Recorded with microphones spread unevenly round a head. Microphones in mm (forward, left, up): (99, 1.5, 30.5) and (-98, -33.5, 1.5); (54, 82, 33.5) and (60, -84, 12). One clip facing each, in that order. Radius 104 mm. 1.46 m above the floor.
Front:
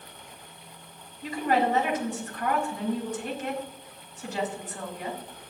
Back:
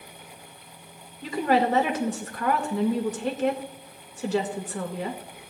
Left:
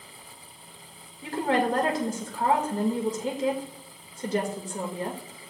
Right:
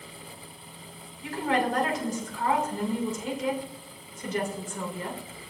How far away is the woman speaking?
About 1.9 m.